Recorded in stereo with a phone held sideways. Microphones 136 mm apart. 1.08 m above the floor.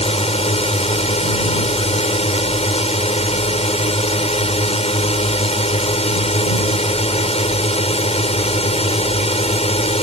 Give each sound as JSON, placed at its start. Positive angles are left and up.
{"t": 0.0, "sound": "a drone", "side_deg": 50}